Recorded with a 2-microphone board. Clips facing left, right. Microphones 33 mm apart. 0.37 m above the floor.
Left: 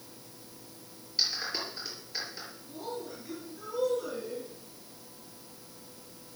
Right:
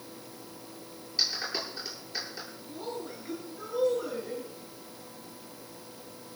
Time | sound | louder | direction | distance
1.2 | a clap | right 1 dB | 5° right (ahead or behind) | 7 m
2.7 | a woman speaking | right 1 dB | 30° right (ahead or behind) | 6.5 m